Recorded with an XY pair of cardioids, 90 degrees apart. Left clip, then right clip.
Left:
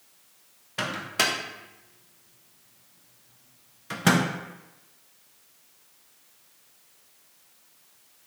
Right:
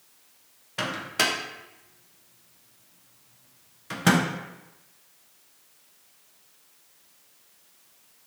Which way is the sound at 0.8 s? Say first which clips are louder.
Even; 5° left.